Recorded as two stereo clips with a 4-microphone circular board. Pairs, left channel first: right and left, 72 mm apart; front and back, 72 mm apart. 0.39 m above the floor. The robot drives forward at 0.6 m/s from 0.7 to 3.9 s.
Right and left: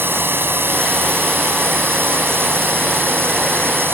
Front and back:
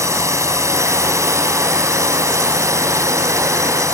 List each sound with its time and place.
0.0 s a drone: 145° left